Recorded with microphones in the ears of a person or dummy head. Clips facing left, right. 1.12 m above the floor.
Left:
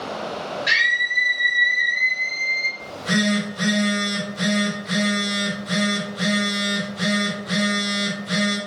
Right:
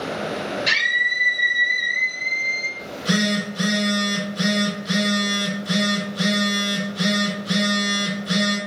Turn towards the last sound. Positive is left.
turn(degrees=-45)  # may be behind; listen again after turning